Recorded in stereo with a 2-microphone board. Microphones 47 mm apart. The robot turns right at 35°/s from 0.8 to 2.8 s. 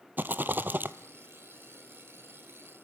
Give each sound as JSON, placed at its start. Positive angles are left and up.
{"t": 0.2, "sound": "a rattle", "side_deg": -45, "distance_m": 0.6}